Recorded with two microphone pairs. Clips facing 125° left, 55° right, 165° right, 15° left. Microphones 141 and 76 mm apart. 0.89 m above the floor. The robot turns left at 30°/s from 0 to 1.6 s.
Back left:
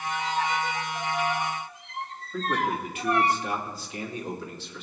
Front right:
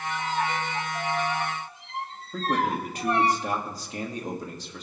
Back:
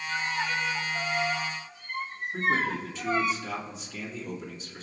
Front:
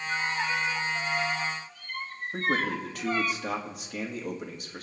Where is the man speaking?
10° right, 2.0 m.